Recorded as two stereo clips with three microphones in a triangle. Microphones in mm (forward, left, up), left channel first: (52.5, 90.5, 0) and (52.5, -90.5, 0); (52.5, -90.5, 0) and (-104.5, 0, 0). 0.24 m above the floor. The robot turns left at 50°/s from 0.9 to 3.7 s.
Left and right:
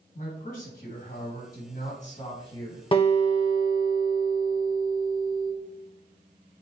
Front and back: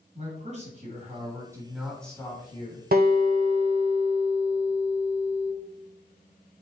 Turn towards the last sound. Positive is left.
turn(degrees=105)